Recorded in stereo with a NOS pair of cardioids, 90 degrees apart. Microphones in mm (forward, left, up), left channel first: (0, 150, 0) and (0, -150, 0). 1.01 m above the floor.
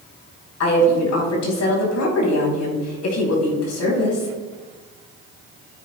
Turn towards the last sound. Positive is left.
turn(degrees=60)